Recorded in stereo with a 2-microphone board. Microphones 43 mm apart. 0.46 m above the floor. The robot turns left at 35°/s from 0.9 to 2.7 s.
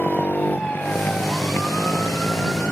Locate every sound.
0.0 s a motorcycle: 130° left; by 2.7 s 65° left